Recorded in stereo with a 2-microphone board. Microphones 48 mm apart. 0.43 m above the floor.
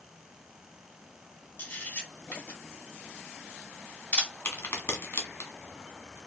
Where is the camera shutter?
50° left (ahead or behind), 1.6 m.